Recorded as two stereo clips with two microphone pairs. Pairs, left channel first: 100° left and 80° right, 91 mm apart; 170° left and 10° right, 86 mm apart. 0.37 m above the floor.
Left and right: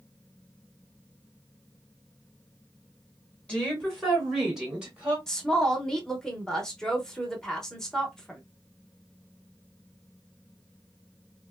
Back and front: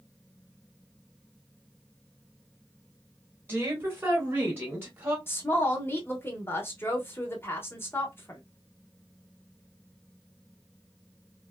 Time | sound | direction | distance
3.5 | a woman speaking | 30° left | 1.6 m
5.3 | a woman speaking | 175° left | 0.8 m